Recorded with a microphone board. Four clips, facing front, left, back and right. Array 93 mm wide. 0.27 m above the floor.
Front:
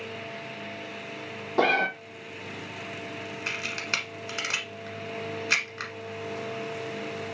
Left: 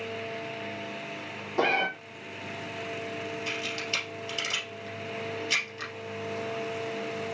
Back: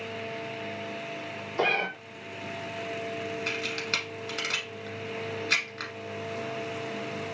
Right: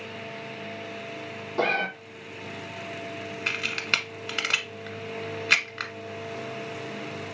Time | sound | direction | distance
1.6 | a cat meowing | 10° left | 1.1 m
3.5 | a camera shutter | 75° right | 0.9 m